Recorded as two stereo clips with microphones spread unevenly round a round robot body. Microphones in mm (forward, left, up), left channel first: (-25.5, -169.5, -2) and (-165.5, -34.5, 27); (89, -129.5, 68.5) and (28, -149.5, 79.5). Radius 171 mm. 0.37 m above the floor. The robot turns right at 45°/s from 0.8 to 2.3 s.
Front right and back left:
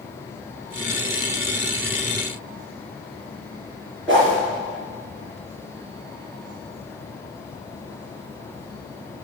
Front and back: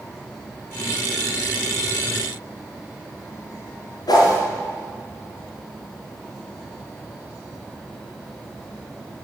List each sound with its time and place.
4.1 s a whoosh: 45° left, 4 m